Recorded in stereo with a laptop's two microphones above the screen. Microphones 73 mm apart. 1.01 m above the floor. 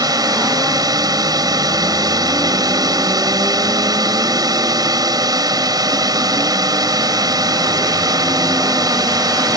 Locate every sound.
0.0 s a drone: 60° right (ahead or behind)